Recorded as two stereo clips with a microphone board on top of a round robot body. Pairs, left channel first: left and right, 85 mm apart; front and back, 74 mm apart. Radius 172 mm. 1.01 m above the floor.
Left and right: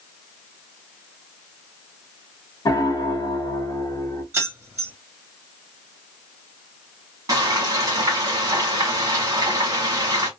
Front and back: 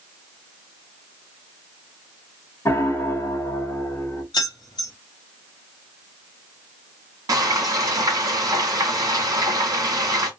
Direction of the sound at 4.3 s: 25° right.